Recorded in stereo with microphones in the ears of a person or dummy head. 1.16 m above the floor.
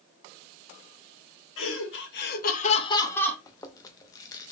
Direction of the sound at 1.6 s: 85° left.